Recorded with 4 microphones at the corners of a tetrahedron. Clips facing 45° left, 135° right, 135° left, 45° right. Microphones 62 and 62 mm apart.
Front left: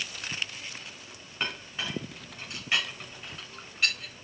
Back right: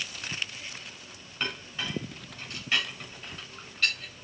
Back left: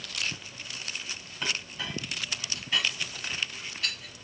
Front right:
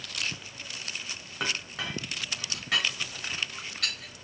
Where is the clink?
30° right, 3.5 m.